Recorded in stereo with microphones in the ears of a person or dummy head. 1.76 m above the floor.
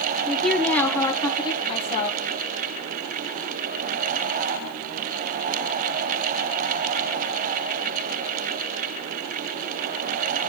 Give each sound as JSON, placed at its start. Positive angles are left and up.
{"t": 0.2, "sound": "a woman speaking", "side_deg": 0, "distance_m": 1.5}